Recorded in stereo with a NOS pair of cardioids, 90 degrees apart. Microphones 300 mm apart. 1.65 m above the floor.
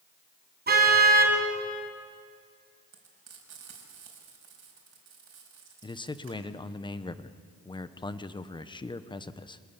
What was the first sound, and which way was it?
A car horn, 35° right.